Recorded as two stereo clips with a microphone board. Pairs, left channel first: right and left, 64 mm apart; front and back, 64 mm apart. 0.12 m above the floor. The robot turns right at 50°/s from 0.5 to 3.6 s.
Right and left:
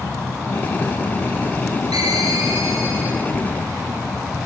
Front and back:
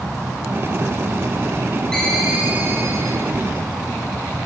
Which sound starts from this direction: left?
A ringtone, at 1.9 s.